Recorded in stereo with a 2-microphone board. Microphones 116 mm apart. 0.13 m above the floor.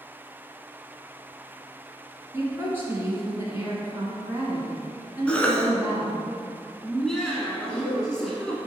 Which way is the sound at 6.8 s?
5° left (ahead or behind).